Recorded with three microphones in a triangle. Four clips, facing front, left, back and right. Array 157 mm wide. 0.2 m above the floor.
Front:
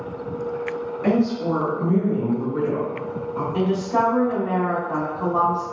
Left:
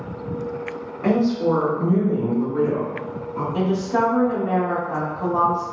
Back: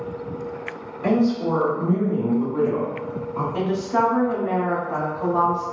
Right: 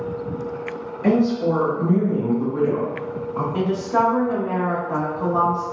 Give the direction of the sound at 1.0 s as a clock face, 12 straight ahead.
9 o'clock.